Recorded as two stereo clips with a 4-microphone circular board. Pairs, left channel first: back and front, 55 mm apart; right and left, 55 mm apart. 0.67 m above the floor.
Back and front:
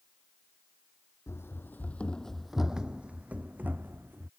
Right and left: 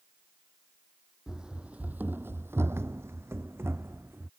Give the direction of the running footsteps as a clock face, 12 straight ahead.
6 o'clock.